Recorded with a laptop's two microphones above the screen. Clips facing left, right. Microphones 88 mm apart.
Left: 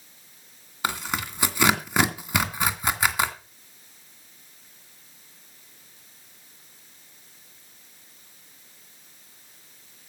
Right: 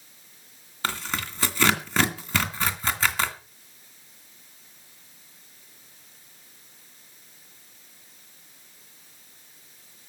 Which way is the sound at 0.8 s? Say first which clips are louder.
Left 2 dB; 15° left (ahead or behind).